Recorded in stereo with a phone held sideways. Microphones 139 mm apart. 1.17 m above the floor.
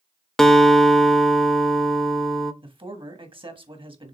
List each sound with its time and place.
0.4 s a guitar: 5° left (ahead or behind), 0.7 m
2.6 s a man speaking: 40° right (ahead or behind), 1.6 m